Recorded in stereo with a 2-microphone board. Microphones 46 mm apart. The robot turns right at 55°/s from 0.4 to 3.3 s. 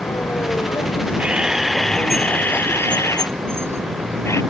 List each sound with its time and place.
0.0 s a vehicle: 90° left; by 4.5 s 110° right
1.2 s a camera shutter: 30° right; by 4.4 s 85° left